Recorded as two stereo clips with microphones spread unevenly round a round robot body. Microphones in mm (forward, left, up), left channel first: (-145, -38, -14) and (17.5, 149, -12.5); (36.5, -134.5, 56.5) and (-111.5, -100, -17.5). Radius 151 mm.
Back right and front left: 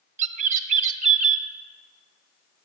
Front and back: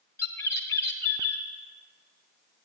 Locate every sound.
0.2 s a bird: 90° left, 1.3 m